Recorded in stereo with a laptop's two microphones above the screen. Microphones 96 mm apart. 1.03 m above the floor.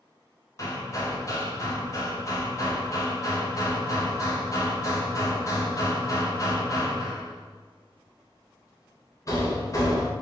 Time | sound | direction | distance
0.6 | hammering | 35° left (ahead or behind) | 0.6 m